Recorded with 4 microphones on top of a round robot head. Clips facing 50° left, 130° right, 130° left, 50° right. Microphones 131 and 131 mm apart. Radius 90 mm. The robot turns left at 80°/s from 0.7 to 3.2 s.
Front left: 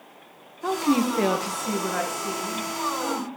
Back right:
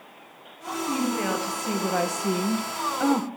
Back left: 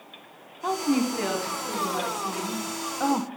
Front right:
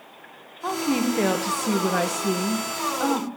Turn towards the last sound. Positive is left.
turn(degrees=-165)